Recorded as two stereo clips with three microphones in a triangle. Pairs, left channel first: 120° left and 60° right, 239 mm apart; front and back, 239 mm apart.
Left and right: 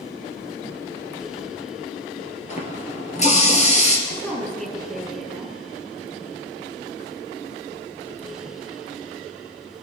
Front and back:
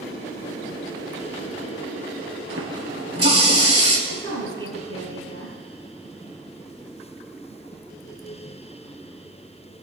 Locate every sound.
2.5 s a running tap: straight behind, 2.5 m
4.1 s a woman speaking: 155° right, 4.5 m